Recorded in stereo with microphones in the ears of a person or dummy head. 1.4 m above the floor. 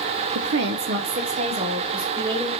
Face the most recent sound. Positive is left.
turn(degrees=-20)  # may be behind; listen again after turning